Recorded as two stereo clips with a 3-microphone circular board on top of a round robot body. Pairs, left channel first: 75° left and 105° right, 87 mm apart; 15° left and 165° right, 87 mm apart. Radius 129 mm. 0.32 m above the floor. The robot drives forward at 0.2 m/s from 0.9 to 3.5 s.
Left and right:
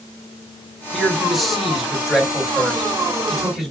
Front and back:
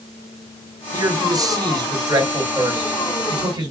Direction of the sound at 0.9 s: 165° left.